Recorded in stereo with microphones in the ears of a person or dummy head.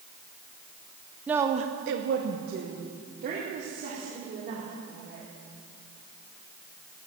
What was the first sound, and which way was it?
A woman speaking, 5° right (ahead or behind).